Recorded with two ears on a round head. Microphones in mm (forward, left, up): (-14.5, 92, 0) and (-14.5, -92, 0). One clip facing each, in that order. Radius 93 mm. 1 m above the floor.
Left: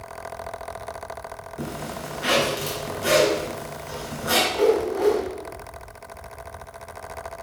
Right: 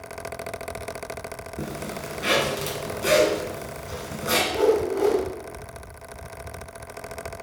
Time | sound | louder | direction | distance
1.6 | a zipper | left 1 dB | 30° right (ahead or behind) | 2 m
4.5 | a whoosh | even | 45° right (ahead or behind) | 1.8 m